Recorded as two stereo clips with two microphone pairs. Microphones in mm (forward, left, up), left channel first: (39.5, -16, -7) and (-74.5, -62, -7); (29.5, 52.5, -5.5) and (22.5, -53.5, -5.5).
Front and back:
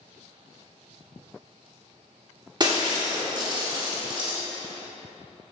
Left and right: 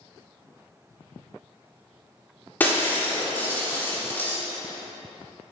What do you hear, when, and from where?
2.6 s breaking glass: 155° left, 1.5 m